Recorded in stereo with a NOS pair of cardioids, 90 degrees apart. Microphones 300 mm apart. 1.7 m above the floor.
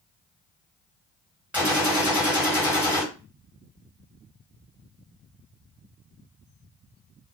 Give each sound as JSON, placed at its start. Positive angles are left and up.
{"t": 1.5, "sound": "a gunshot", "azimuth_deg": -5, "distance_m": 1.7}